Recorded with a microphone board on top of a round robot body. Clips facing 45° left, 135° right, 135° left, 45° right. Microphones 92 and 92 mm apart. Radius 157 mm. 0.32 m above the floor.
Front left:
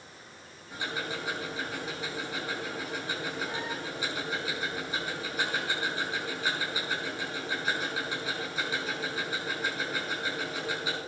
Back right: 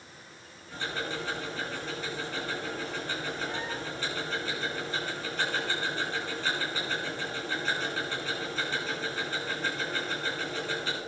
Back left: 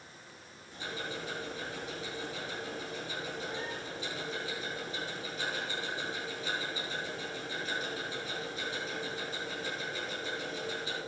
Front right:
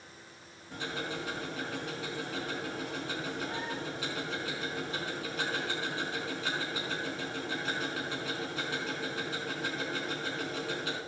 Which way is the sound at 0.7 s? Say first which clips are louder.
Back right 1 dB, front right 3 dB; 35° right.